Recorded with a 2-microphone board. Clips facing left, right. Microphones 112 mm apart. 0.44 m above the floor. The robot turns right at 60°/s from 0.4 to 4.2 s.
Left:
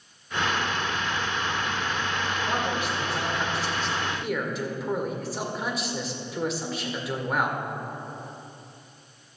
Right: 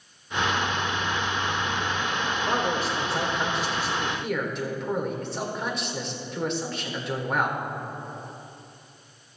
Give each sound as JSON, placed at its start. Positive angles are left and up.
{"t": 2.5, "sound": "a man speaking", "azimuth_deg": -100, "distance_m": 1.7}